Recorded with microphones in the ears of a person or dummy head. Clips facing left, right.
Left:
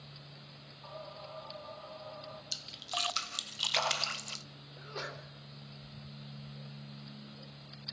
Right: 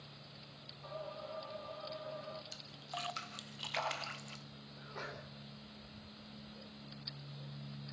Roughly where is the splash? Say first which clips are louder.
Left 4 dB; left.